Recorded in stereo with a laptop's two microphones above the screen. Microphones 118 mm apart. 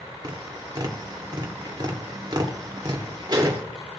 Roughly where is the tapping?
Right.